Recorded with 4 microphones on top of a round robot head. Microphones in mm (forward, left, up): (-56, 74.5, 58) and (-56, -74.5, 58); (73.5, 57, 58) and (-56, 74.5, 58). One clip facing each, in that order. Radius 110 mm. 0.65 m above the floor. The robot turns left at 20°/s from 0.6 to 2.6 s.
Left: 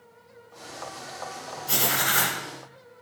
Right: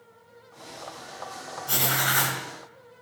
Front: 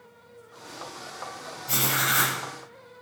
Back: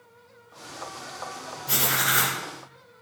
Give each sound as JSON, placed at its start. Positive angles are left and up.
{"t": 1.7, "sound": "writing", "azimuth_deg": 180, "distance_m": 2.5}